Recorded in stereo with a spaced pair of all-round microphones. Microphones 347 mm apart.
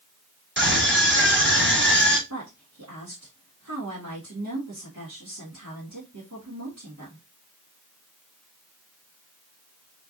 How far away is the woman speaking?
About 2.5 m.